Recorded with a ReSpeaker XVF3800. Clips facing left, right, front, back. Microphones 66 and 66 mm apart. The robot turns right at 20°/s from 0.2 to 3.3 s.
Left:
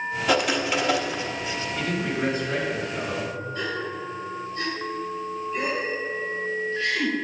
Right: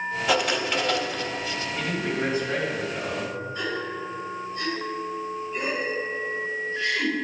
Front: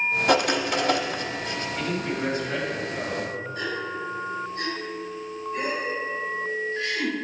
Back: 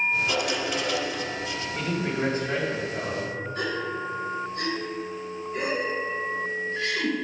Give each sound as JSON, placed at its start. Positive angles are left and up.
{"t": 0.3, "sound": "writing", "azimuth_deg": 5, "distance_m": 0.8}
{"t": 1.8, "sound": "a man speaking", "azimuth_deg": -150, "distance_m": 2.5}
{"t": 3.5, "sound": "a gasp", "azimuth_deg": -165, "distance_m": 2.5}